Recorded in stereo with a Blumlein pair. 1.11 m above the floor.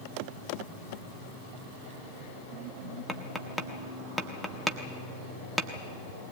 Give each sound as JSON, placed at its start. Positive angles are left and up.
{"t": 3.1, "sound": "tapping", "azimuth_deg": 0, "distance_m": 1.3}